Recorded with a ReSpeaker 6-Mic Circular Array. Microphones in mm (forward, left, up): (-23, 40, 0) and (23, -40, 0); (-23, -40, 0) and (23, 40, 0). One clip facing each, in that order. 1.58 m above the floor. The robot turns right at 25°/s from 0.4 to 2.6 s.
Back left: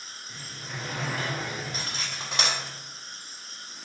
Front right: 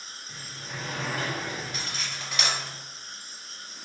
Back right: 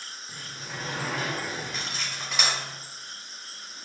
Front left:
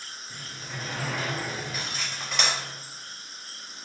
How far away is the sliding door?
About 1.8 m.